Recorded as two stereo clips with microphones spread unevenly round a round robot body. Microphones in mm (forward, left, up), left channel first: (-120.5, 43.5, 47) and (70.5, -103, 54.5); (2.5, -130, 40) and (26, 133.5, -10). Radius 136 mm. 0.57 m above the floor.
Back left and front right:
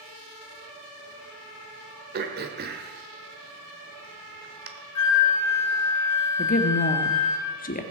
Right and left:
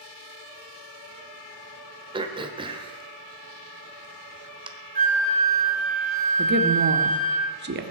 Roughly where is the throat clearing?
Ahead.